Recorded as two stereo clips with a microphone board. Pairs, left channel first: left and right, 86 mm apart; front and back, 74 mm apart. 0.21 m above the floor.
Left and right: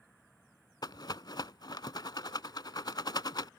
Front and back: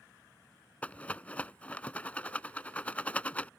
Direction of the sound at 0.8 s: 70° left.